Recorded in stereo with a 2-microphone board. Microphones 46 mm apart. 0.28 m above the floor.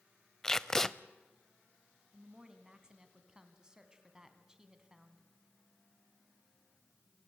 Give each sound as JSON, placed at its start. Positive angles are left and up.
{"t": 0.4, "sound": "tape being pulled", "side_deg": 15, "distance_m": 0.5}
{"t": 2.1, "sound": "a woman speaking", "side_deg": -15, "distance_m": 2.5}